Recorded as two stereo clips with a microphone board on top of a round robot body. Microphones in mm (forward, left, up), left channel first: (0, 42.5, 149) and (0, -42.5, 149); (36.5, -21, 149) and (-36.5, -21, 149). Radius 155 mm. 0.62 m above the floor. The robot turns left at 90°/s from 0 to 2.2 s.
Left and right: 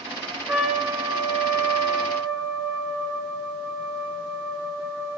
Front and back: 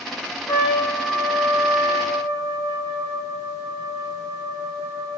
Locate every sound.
0.5 s a trumpet: 5° right, 2 m; by 5.2 s 160° right, 2 m